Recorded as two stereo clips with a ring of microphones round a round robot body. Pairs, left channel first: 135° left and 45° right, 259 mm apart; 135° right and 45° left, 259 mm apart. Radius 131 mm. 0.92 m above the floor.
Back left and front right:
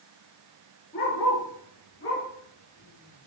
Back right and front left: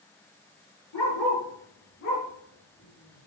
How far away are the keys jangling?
I don't hear keys jangling.